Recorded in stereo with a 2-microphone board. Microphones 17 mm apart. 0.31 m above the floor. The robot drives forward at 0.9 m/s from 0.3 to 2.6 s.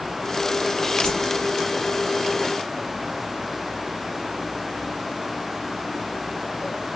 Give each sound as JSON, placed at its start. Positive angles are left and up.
{"t": 1.0, "sound": "a whoosh", "side_deg": 60, "distance_m": 3.5}